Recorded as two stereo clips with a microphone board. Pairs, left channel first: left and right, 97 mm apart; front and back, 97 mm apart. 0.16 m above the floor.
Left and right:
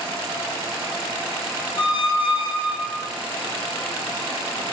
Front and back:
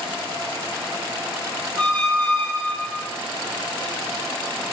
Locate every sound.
1.8 s a squeak: 70° left, 0.5 m